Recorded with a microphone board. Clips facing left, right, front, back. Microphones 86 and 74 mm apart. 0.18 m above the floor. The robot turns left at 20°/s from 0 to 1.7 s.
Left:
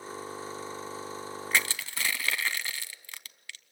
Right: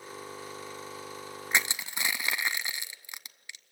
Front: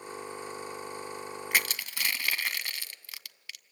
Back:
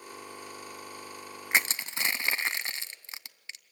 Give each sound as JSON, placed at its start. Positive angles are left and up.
{"t": 1.5, "sound": "crushing", "azimuth_deg": -140, "distance_m": 0.6}